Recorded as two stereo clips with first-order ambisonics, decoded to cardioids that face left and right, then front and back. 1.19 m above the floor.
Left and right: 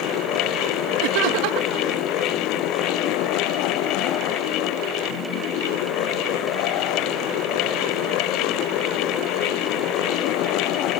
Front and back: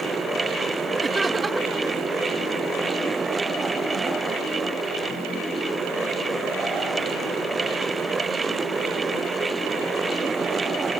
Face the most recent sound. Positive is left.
turn(degrees=-100)